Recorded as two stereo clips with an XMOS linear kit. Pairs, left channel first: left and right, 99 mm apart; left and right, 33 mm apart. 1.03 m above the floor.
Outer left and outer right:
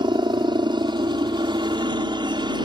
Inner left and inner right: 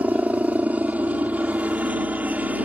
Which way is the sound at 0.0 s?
55° right (ahead or behind).